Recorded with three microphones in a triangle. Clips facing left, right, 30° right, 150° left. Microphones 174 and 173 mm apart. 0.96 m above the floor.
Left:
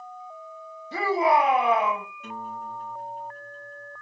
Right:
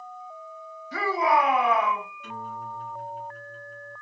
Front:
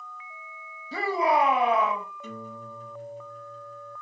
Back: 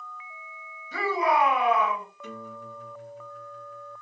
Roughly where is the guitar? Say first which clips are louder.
Left 1 dB, even; ahead left.